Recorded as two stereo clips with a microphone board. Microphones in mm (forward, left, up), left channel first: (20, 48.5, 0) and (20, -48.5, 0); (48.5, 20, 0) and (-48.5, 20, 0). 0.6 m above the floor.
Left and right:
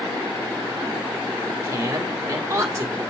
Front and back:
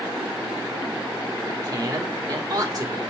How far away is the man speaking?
About 1.9 m.